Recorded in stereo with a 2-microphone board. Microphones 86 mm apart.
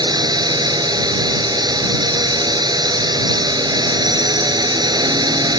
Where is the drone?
55° right (ahead or behind).